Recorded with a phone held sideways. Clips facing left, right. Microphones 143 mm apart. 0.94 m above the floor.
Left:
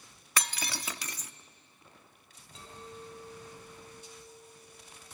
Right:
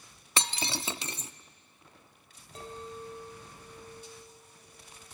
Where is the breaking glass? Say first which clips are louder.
Right 3 dB; 25° right (ahead or behind), 0.5 m.